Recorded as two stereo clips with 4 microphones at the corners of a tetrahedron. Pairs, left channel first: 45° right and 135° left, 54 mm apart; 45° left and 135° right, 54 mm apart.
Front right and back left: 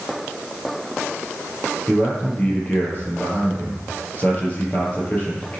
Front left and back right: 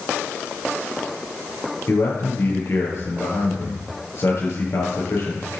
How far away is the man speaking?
About 5.5 m.